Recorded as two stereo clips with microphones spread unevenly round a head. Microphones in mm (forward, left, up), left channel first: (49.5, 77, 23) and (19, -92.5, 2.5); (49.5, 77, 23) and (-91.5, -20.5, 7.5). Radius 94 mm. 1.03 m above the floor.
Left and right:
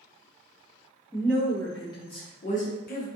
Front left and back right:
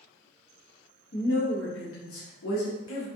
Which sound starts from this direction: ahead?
A woman speaking, at 1.1 s.